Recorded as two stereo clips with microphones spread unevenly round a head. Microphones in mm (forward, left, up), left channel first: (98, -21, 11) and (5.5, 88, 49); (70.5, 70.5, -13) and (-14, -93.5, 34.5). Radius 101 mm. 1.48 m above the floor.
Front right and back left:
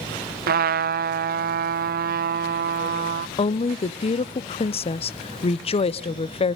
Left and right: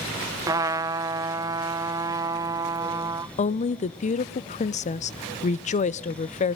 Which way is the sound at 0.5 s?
160° left.